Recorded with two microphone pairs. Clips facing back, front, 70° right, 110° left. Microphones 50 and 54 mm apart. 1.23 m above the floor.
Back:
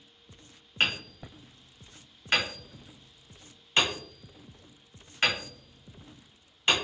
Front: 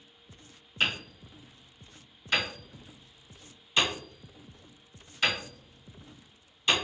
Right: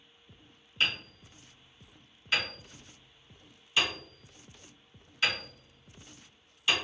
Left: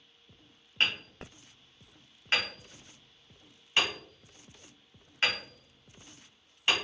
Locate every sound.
0.8 s hammering: 150° left, 1.5 m